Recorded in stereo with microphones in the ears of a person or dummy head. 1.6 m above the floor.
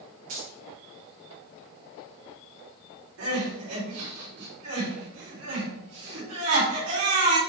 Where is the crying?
85° right, 3 m.